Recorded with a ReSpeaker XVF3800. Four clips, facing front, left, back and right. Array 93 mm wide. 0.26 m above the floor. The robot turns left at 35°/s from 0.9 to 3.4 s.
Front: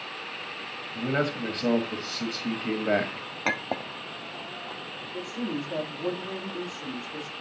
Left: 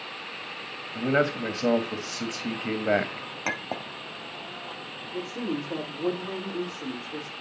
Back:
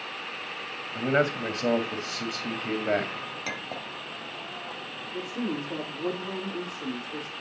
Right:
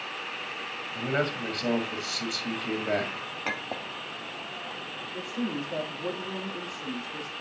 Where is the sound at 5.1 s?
130° left, 7 m.